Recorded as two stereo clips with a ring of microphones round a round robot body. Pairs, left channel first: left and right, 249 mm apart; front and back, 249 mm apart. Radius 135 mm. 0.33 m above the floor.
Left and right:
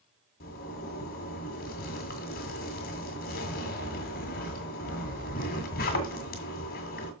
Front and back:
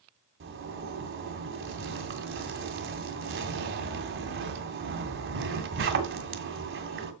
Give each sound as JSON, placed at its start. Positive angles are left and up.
{"t": 0.4, "sound": "a zipper", "azimuth_deg": 145, "distance_m": 2.0}